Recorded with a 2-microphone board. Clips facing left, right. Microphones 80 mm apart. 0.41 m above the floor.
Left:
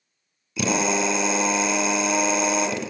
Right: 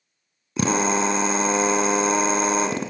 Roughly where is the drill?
Right.